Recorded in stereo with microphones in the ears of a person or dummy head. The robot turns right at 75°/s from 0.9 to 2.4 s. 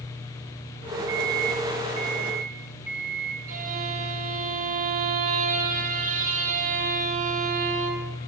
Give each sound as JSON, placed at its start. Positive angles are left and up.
{"t": 1.1, "sound": "a microwave", "azimuth_deg": -115, "distance_m": 0.6}
{"t": 3.5, "sound": "a violin", "side_deg": -45, "distance_m": 0.8}